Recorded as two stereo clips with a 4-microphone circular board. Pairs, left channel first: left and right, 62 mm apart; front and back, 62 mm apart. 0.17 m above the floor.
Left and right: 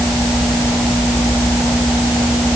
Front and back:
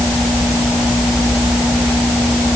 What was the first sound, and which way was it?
Only background noise.